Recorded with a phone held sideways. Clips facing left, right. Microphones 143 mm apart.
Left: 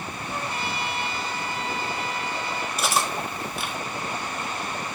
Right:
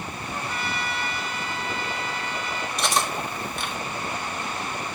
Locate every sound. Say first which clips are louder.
0.3 s a trumpet: left 1 dB; 50° left (ahead or behind), 2 m
2.8 s cutlery clinking: even; 5° left (ahead or behind), 1.4 m